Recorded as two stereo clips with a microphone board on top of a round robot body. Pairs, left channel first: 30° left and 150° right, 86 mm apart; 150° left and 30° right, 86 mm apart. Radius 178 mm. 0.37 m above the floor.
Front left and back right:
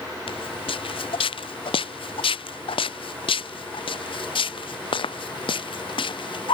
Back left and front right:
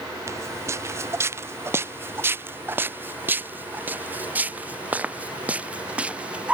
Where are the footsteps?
25° left; by 6.5 s 45° left.